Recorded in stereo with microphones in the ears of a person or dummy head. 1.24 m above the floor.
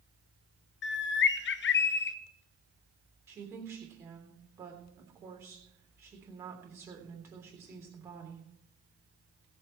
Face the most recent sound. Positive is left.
turn(degrees=-15)  # may be behind; listen again after turning